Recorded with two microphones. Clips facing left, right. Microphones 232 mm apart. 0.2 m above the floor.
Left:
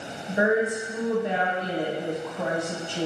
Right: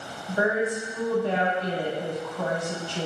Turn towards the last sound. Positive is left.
turn(degrees=20)  # may be behind; listen again after turning